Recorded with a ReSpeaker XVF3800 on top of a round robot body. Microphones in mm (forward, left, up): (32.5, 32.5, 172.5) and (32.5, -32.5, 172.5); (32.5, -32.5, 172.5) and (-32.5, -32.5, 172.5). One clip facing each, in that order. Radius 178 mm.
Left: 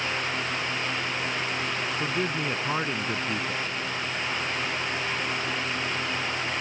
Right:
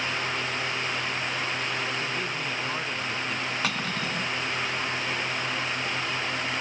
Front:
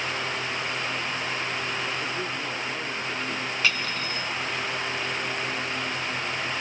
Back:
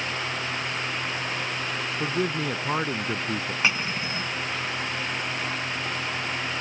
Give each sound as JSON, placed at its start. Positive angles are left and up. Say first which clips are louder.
{"t": 2.0, "sound": "a man speaking", "louder": "left 3 dB, back 4 dB", "azimuth_deg": 155}
{"t": 3.6, "sound": "cutlery clinking", "louder": "right 2 dB, back 1 dB", "azimuth_deg": -110}